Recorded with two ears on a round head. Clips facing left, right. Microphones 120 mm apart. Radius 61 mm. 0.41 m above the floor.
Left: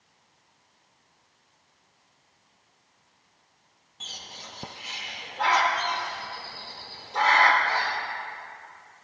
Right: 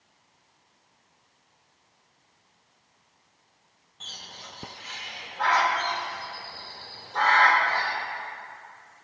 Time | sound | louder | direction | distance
4.0 | a bird | left 1 dB | 15° left (ahead or behind) | 0.6 m